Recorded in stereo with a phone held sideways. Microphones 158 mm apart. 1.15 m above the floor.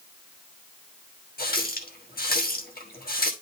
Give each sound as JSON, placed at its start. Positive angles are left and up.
{"t": 1.4, "sound": "a running tap", "side_deg": 80, "distance_m": 1.3}